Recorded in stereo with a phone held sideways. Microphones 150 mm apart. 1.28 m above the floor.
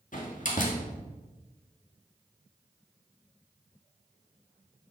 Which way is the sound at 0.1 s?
60° left (ahead or behind).